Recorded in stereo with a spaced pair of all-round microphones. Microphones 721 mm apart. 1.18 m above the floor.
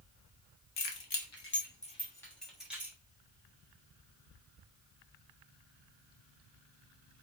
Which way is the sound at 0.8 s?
45° left (ahead or behind).